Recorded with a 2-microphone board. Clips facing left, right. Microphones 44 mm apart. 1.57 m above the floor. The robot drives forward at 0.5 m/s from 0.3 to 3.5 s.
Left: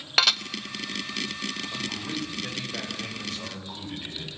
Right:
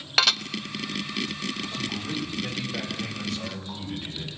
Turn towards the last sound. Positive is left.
turn(degrees=10)  # may be behind; listen again after turning